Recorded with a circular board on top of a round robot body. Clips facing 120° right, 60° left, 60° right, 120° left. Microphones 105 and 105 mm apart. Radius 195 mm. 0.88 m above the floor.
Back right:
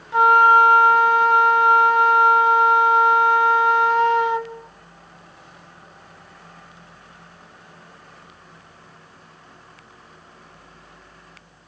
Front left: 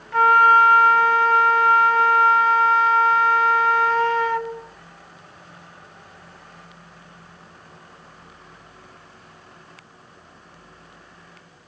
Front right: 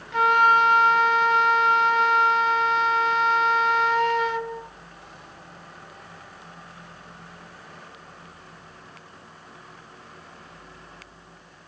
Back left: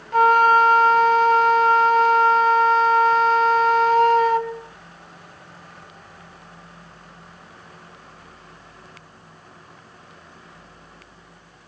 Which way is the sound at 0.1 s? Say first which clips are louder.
Back right 1 dB, back left 4 dB; 170° left.